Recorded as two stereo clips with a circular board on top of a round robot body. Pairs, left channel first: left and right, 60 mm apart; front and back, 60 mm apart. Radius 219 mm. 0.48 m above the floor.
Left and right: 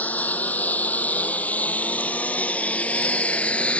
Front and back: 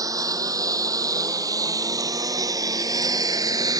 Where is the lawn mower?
155° left; by 3.8 s 160° left.